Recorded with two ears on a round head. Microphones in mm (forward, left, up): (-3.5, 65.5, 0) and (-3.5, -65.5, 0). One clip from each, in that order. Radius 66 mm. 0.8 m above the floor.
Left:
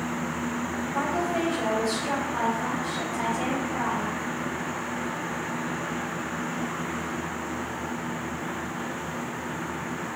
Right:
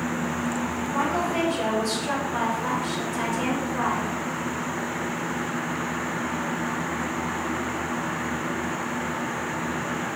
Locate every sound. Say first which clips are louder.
0.9 s a woman speaking: right 2 dB; 35° right (ahead or behind), 4 m